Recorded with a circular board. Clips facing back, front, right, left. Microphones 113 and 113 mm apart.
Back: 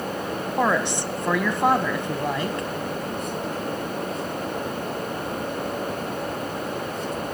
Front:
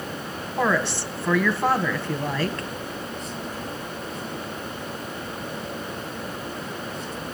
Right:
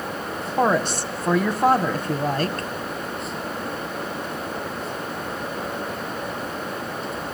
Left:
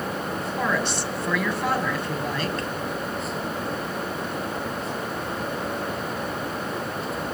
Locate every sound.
0.6 s a woman speaking: 115° right, 1.8 m